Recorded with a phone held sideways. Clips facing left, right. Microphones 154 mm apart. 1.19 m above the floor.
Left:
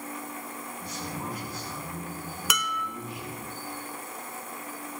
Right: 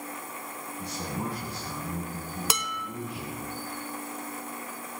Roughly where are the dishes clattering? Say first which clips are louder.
Left 1 dB; right.